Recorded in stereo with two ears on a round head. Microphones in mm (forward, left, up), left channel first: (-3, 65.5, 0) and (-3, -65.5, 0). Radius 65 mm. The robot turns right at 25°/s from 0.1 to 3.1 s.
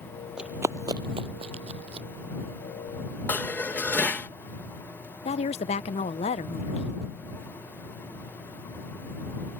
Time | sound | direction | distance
0.4 | running footsteps | 5° right (ahead or behind) | ?
3.3 | dishes clattering | 10° left (ahead or behind) | ?
5.2 | a woman speaking | 45° left (ahead or behind) | ?